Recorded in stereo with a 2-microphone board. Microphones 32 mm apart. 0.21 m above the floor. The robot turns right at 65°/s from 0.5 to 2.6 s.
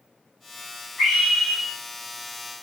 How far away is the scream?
About 2 m.